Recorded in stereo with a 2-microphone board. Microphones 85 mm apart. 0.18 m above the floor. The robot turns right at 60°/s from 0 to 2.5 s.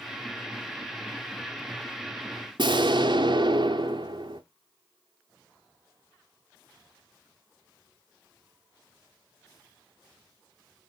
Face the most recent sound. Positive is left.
turn(degrees=-65)  # may be behind; listen again after turning